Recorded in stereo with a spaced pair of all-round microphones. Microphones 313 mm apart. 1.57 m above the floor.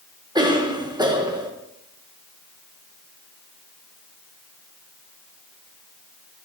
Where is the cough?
15° right (ahead or behind), 1.3 m.